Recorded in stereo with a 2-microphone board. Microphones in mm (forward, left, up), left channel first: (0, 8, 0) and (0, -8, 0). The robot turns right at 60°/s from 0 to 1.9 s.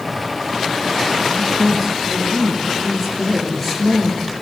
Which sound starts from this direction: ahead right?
A man speaking, at 1.2 s.